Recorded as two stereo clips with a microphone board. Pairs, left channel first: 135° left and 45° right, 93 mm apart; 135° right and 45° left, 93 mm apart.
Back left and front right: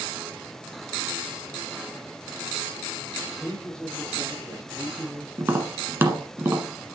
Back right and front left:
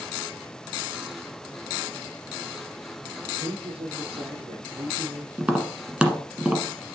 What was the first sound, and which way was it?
A man speaking, 55° left.